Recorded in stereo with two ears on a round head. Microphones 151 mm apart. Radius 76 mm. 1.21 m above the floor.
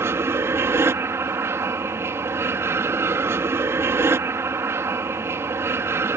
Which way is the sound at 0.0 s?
15° right (ahead or behind).